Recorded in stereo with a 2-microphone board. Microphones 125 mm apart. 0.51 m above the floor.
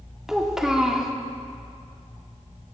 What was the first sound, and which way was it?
A child speaking, 5° right (ahead or behind).